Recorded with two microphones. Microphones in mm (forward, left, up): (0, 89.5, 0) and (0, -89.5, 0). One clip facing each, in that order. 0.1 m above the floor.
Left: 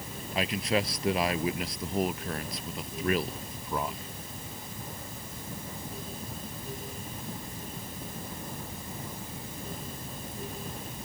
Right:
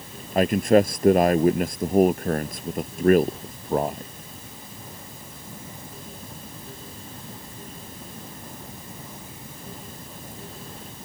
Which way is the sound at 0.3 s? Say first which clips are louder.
Right 12 dB; 50° right (ahead or behind).